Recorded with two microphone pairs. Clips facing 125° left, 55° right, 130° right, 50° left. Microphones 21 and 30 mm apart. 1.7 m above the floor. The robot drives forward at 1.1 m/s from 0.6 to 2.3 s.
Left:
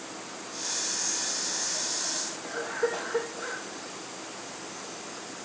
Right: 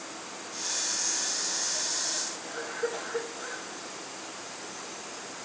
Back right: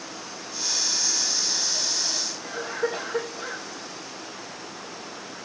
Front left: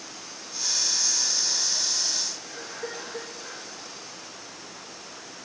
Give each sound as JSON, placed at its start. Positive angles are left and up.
{"t": 2.4, "sound": "a cough", "azimuth_deg": 175, "distance_m": 2.5}